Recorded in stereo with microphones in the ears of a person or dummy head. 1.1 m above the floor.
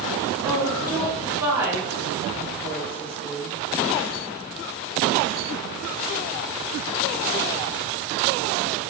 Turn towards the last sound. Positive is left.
turn(degrees=-15)  # may be behind; listen again after turning